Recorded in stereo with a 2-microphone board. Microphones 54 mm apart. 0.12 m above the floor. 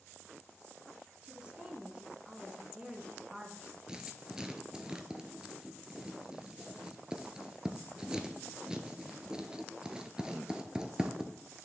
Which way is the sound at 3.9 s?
15° right (ahead or behind).